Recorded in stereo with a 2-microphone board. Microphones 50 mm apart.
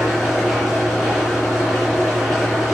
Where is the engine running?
5° left (ahead or behind), 6 m.